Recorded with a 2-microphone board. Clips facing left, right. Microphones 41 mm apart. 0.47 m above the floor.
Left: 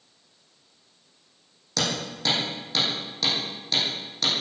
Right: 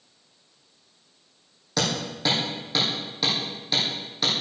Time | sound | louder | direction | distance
1.8 | hammering | right 1 dB | 10° right (ahead or behind) | 9.5 m